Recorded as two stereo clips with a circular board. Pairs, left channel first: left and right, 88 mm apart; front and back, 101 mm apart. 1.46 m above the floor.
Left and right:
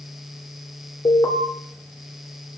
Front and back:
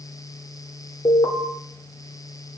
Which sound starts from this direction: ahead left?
An alarm, at 1.1 s.